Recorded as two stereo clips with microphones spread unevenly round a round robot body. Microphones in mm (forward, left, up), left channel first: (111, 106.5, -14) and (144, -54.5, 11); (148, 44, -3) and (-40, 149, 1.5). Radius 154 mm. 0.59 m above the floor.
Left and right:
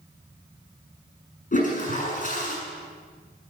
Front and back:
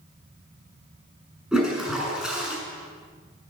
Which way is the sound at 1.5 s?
65° left.